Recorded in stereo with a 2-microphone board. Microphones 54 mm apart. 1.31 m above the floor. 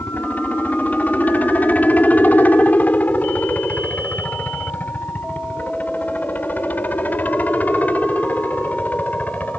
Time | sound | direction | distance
0.0 | a helicopter | 30° left (ahead or behind) | ?